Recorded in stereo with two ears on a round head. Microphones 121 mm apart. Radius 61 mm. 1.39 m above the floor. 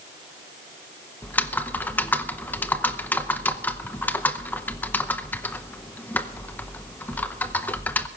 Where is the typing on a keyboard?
15° left (ahead or behind), 0.7 m.